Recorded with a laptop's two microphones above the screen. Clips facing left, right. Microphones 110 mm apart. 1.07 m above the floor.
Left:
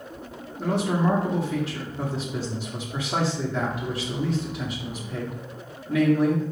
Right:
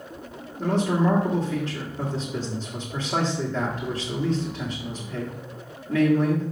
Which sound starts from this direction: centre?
A man speaking, at 0.6 s.